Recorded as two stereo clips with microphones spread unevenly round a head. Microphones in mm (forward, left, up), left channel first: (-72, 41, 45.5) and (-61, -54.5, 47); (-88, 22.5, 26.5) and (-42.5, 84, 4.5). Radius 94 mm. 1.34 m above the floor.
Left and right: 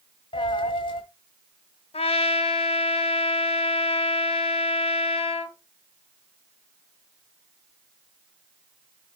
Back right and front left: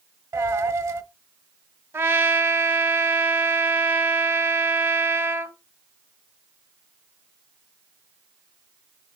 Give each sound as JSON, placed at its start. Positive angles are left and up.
{"t": 0.3, "sound": "a dropped coin", "azimuth_deg": 110, "distance_m": 1.4}
{"t": 1.9, "sound": "a trumpet", "azimuth_deg": 115, "distance_m": 1.2}